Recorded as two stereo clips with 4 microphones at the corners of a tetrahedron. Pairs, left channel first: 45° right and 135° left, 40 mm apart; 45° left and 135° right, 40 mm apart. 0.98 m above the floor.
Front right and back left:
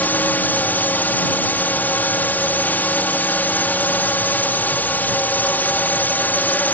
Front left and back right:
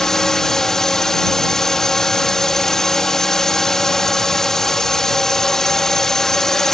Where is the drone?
30° right.